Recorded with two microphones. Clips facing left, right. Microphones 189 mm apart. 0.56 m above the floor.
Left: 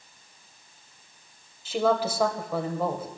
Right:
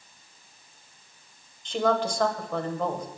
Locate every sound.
1.6 s a woman speaking: 5° left (ahead or behind), 2 m